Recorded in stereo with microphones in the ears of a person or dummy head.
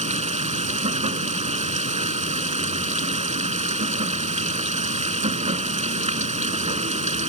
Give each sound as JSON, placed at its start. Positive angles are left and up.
{"t": 0.0, "sound": "running water", "side_deg": -30}